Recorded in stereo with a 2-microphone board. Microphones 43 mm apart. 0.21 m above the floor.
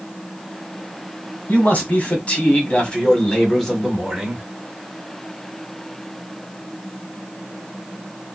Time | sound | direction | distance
1.5 | a man speaking | 40° left (ahead or behind) | 1.9 m